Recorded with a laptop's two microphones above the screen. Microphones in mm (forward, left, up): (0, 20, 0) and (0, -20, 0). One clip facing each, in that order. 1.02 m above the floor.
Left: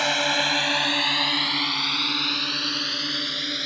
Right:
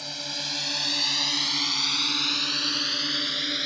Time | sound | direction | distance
0.0 | a drone | 65° left (ahead or behind) | ?